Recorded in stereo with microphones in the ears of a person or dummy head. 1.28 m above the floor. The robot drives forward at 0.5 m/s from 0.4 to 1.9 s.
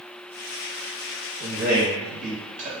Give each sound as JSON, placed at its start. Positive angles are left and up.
{"t": 1.4, "sound": "a man speaking", "side_deg": -45, "distance_m": 1.0}